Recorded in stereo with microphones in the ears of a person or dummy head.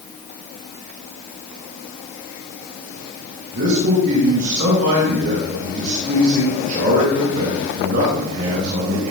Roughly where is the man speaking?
Right.